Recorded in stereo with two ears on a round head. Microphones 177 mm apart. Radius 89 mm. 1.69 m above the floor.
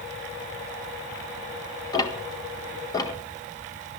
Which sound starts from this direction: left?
Ticking, at 1.9 s.